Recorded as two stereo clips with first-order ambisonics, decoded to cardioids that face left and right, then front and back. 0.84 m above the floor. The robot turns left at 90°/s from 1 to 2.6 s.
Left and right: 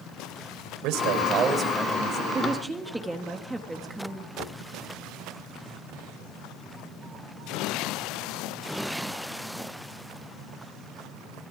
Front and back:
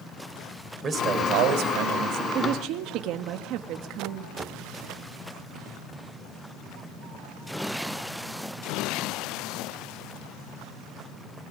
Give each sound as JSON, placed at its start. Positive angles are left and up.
{"t": 0.8, "sound": "a man speaking", "azimuth_deg": -115, "distance_m": 3.0}
{"t": 2.3, "sound": "a woman speaking", "azimuth_deg": -150, "distance_m": 1.3}
{"t": 4.4, "sound": "knocking", "azimuth_deg": 120, "distance_m": 2.0}